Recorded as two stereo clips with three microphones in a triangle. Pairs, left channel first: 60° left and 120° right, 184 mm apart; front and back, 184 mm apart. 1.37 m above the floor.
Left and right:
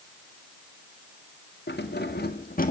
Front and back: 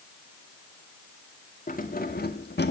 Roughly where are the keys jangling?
Ahead left.